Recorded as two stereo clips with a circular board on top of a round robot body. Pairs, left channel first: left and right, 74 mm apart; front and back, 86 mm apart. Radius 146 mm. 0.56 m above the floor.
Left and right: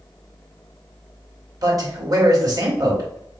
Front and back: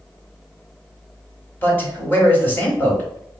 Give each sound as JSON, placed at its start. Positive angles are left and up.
{"t": 1.6, "sound": "a man speaking", "azimuth_deg": -65, "distance_m": 2.5}